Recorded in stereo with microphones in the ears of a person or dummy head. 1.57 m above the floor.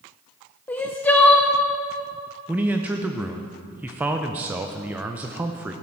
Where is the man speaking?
10° right (ahead or behind), 0.6 m.